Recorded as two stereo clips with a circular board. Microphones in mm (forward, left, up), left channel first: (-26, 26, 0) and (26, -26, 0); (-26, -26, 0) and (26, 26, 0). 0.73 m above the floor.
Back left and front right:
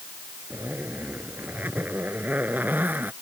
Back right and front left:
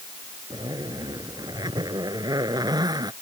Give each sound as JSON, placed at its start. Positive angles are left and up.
{"t": 0.5, "sound": "a zipper", "azimuth_deg": 20}